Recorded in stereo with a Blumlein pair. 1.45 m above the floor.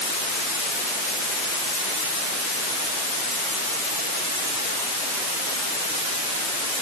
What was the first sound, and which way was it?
Only background noise.